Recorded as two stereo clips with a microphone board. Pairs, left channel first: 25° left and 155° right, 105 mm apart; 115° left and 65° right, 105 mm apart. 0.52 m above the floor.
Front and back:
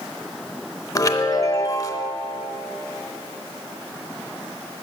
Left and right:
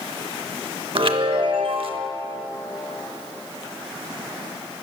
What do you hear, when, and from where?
0.9 s a chime: 35° right, 0.7 m